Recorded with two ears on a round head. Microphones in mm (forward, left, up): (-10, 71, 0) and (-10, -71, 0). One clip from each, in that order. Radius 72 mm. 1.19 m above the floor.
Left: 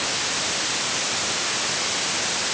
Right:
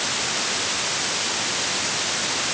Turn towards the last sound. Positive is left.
No sound to turn to.